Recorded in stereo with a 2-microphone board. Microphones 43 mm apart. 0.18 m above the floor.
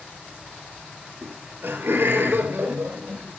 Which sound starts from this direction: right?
Laughter, at 1.2 s.